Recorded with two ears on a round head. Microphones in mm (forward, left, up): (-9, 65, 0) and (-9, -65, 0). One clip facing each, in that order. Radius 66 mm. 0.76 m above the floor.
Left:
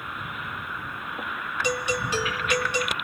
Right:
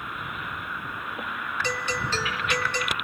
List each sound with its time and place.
1.6 s a doorbell: 10° left (ahead or behind)